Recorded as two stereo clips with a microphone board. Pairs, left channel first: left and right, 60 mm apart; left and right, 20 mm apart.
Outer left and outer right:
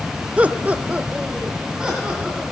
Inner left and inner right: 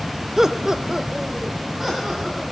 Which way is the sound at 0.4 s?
20° right (ahead or behind).